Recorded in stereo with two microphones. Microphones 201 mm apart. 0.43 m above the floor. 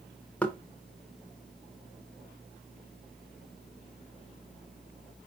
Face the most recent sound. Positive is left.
turn(degrees=5)  # may be behind; listen again after turning